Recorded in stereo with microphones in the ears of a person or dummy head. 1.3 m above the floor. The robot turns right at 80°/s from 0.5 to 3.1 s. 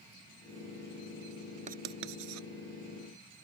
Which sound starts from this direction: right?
Writing, at 1.7 s.